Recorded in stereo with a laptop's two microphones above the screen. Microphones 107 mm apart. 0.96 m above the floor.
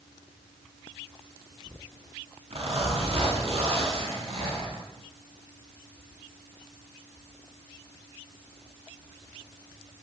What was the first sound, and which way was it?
A zipper, 70° right (ahead or behind).